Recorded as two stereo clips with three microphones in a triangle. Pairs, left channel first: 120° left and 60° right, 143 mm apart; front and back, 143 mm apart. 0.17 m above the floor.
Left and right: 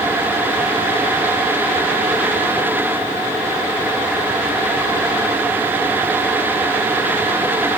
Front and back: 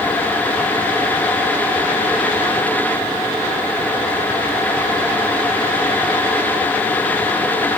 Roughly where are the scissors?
No scissors in this recording.